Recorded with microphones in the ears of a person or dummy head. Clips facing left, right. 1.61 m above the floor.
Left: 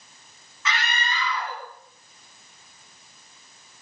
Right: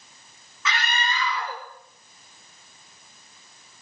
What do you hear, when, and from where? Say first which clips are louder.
0.7 s a scream: right 1 dB; 85° right, 5.5 m